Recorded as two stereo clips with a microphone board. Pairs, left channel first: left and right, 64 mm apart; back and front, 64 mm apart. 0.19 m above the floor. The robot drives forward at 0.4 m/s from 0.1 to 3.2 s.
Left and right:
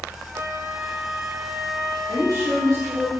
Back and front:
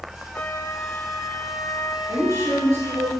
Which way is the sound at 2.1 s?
40° left.